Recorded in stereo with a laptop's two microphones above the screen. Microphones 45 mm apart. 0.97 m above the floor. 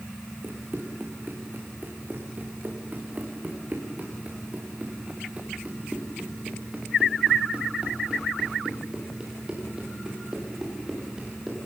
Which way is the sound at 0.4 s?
50° right (ahead or behind).